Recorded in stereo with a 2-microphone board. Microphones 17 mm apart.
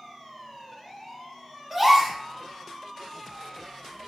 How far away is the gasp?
About 1.2 m.